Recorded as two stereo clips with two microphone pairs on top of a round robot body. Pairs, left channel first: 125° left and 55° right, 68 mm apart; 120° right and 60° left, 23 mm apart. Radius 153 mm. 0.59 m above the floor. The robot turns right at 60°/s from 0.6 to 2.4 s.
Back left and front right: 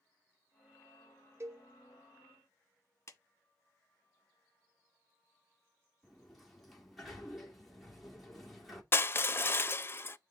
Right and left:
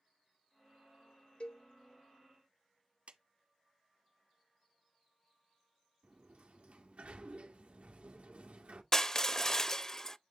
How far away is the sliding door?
About 2 m.